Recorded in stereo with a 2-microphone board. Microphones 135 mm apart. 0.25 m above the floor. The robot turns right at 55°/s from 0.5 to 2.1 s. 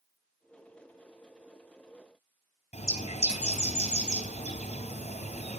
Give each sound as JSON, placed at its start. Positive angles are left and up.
{"t": 2.7, "sound": "a bird", "side_deg": 55, "distance_m": 3.0}